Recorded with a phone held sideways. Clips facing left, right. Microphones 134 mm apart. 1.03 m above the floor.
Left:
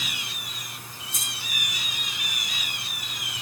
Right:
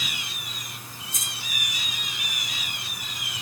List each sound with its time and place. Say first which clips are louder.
1.1 s keys jangling: left 1 dB; 60° left (ahead or behind), 8.5 m